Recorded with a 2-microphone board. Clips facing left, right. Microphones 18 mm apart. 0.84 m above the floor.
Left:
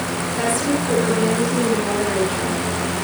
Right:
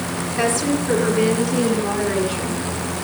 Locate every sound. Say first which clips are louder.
0.4 s a woman speaking: right 1 dB; 20° right (ahead or behind), 7.5 m; by 2.6 s 5° right (ahead or behind), 8.5 m